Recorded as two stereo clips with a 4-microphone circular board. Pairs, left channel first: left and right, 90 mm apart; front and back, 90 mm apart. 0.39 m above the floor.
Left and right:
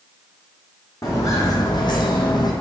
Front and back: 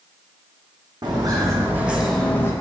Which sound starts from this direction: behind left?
Footsteps, at 1.0 s.